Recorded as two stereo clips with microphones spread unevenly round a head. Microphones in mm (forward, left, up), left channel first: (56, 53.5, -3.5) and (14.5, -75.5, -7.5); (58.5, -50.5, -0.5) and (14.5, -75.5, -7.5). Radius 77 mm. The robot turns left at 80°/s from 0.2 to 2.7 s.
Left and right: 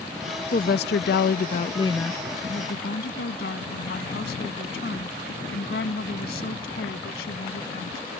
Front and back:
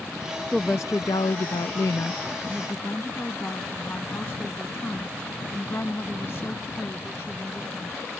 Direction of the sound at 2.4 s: 120° left.